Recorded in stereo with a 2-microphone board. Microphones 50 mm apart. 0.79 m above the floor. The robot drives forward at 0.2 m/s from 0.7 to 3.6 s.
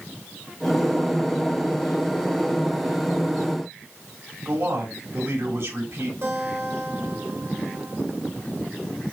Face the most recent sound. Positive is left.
turn(degrees=-60)  # may be behind; listen again after turning